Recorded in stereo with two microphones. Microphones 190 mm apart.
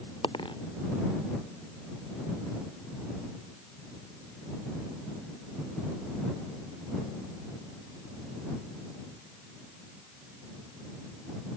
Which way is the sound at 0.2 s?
25° left (ahead or behind).